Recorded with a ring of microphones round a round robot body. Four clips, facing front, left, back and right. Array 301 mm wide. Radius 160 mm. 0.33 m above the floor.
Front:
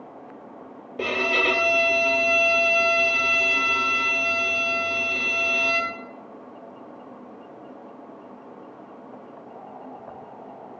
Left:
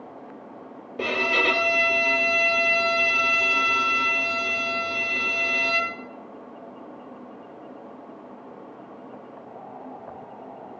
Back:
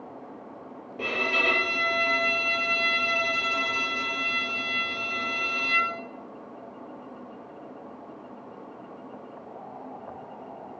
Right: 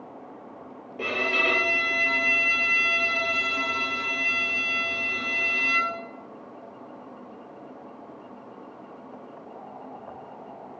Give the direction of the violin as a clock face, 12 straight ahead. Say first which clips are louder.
Left 3 dB, front 4 dB; 11 o'clock.